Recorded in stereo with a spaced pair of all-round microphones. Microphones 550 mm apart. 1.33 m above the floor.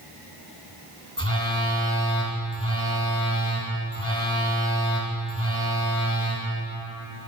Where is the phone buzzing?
25° right (ahead or behind), 2.5 m.